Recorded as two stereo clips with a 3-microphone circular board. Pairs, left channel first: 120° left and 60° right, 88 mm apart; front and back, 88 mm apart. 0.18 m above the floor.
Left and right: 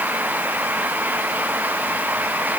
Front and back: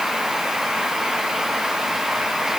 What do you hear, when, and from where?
Only background noise.